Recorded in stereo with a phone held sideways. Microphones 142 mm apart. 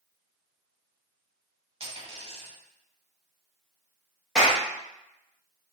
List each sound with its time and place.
1.8 s a dropped coin: 45° right (ahead or behind), 1.0 m
4.3 s a clap: 5° right (ahead or behind), 0.8 m